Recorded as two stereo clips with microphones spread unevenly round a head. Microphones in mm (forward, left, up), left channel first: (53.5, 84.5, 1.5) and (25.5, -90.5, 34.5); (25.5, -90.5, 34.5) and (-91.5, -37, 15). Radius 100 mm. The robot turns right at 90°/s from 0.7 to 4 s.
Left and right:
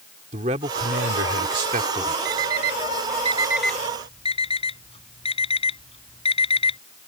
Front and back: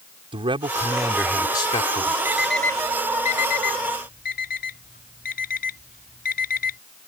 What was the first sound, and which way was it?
A man speaking, 155° right.